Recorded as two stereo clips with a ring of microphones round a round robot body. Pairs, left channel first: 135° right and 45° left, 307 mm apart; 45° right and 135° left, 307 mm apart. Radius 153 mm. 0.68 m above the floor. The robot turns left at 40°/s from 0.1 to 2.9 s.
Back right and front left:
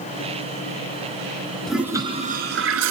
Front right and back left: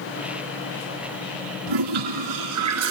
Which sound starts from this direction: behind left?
A toilet flushing, at 1.7 s.